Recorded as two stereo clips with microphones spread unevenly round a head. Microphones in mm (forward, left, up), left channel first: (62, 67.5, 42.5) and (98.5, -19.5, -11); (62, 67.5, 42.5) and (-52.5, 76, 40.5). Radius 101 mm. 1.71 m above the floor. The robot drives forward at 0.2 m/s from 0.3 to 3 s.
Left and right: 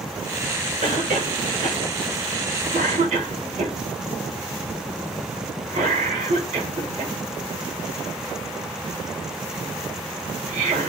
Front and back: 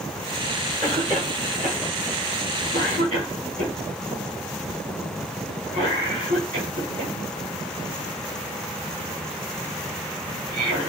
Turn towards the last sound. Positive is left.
turn(degrees=-130)